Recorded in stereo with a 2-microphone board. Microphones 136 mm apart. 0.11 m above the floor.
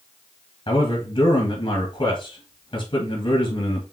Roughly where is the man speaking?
Left.